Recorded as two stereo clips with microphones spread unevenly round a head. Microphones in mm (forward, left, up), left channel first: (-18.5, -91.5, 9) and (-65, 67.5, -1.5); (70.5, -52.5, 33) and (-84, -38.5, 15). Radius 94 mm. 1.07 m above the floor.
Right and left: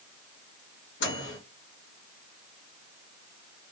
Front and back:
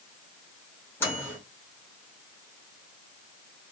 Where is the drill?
No drill in this recording.